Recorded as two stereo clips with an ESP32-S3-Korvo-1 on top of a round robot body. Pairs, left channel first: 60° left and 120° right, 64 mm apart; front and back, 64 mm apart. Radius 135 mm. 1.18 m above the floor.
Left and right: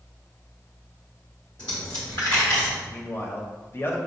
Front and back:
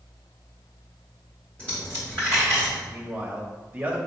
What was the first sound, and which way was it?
A dropped coin, 70° left.